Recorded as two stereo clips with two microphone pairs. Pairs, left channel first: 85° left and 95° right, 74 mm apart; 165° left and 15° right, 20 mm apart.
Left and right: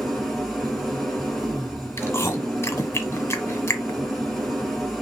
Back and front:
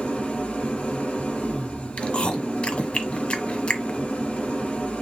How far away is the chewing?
About 1.3 m.